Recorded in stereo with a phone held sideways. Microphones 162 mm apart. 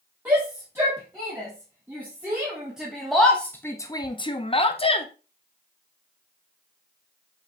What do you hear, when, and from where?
0.2 s a shout: 15° right (ahead or behind), 2.5 m; by 5.1 s 35° left (ahead or behind), 0.8 m